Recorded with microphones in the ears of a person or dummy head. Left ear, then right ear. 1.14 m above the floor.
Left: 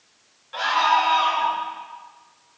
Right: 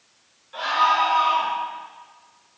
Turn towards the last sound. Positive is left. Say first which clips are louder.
# even
turn(degrees=20)  # may be behind; listen again after turning